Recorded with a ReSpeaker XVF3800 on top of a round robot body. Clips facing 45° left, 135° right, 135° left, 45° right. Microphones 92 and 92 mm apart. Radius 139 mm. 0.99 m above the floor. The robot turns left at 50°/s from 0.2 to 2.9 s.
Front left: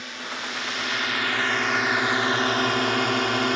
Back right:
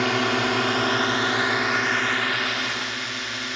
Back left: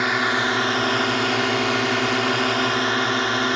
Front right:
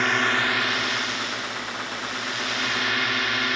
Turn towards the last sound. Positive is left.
turn(degrees=80)